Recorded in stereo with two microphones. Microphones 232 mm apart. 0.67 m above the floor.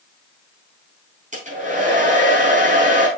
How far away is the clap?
No clap in this recording.